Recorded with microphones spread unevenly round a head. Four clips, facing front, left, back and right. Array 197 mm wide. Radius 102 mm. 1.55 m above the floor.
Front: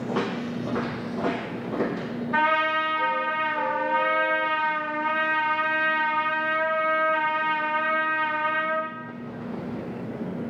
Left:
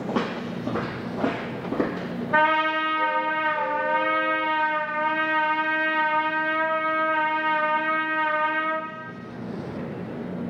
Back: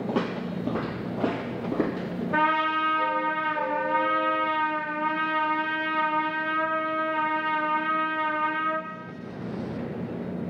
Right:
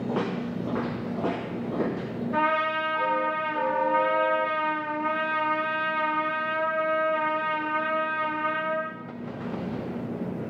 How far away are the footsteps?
About 1.7 m.